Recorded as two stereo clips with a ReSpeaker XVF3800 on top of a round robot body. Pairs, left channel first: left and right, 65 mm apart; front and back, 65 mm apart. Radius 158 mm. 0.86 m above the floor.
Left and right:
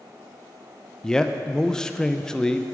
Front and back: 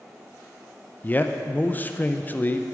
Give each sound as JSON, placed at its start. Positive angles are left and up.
{"t": 1.0, "sound": "a man speaking", "azimuth_deg": 20, "distance_m": 0.7}